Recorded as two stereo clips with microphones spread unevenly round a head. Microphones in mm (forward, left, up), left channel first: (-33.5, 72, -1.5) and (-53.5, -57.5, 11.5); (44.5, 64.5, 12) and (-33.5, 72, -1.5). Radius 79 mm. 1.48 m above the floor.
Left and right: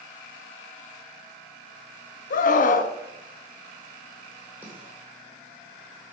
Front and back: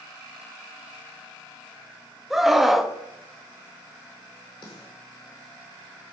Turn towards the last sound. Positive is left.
turn(degrees=-25)